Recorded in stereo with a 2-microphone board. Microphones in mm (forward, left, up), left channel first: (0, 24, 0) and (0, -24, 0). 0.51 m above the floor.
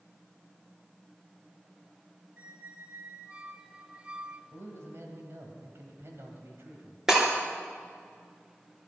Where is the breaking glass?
10° right (ahead or behind), 3.5 m.